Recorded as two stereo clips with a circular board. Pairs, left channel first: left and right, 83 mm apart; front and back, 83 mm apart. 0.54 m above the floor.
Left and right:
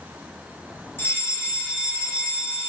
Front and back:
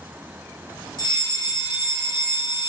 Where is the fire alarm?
30° left, 3.5 m.